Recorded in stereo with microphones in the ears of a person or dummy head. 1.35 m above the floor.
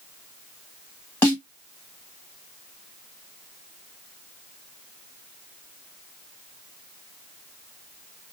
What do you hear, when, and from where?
1.2 s a snare drum: 15° left (ahead or behind), 1.4 m